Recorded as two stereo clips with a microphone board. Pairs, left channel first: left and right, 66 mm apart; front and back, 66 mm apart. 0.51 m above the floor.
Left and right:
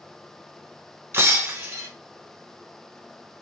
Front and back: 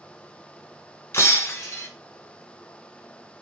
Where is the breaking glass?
50° right, 1.2 m.